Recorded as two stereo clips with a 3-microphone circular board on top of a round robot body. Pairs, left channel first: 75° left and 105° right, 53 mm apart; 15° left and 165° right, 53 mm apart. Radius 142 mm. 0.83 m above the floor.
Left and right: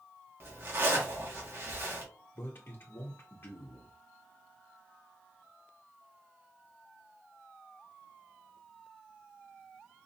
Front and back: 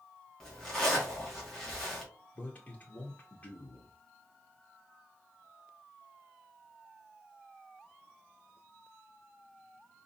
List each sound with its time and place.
0.4 s a zipper: 65° right, 1.6 m
2.4 s a man speaking: 60° left, 1.1 m